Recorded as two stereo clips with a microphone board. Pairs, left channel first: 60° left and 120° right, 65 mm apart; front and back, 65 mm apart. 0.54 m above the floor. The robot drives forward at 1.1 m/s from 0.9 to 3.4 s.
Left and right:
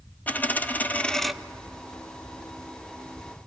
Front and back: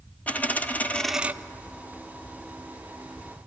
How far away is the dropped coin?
About 0.5 m.